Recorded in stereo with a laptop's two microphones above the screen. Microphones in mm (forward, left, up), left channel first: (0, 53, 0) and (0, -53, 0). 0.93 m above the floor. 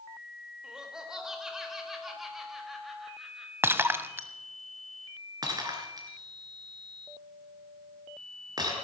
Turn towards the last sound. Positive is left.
turn(degrees=-40)  # may be behind; listen again after turning